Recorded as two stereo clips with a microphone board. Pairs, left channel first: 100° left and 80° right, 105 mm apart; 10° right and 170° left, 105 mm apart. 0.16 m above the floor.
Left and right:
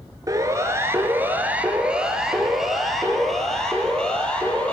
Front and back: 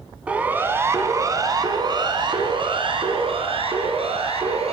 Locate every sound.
0.3 s a siren: 115° right, 2.5 m; by 4.7 s straight behind, 4.5 m